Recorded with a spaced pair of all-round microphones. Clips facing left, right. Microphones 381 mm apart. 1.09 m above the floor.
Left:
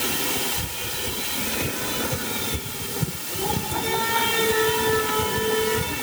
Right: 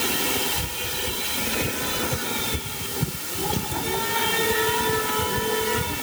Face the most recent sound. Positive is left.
No sound to turn to.